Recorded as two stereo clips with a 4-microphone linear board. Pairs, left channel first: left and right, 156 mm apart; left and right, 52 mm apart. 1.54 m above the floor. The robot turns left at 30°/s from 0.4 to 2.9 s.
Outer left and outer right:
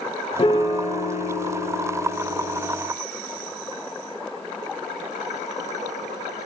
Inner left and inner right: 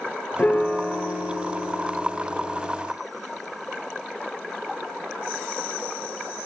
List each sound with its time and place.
0.4 s a piano: 140° left, 0.5 m; by 2.8 s 70° left, 0.5 m